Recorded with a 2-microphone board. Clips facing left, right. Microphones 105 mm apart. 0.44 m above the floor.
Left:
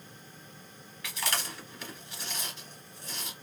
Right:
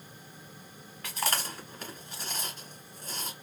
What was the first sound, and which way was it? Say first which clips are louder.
Chewing: right 2 dB; 45° right (ahead or behind).